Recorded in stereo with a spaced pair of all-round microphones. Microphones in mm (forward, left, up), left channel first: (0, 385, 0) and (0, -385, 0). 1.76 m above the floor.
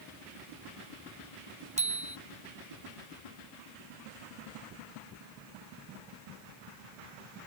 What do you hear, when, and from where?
1.8 s a bicycle bell: 10° right (ahead or behind)